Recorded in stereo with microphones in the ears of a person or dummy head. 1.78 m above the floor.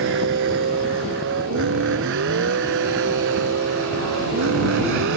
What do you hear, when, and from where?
0.0 s a vehicle: 55° right (ahead or behind); by 5.2 s 60° right (ahead or behind)